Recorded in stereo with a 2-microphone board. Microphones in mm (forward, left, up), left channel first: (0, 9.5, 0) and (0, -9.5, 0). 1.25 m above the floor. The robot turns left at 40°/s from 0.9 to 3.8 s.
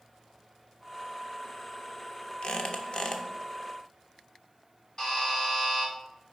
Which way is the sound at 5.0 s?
25° left (ahead or behind).